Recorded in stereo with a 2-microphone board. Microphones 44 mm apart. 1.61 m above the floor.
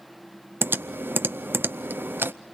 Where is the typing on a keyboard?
55° right (ahead or behind), 0.5 m.